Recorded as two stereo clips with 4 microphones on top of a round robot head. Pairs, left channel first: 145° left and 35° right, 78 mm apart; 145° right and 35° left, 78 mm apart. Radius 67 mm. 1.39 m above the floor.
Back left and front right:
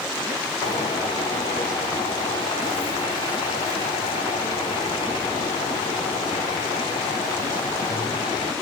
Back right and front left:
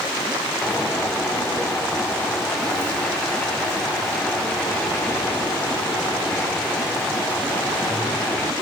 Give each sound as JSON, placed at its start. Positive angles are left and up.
{"t": 0.6, "sound": "a bird", "azimuth_deg": 135, "distance_m": 3.5}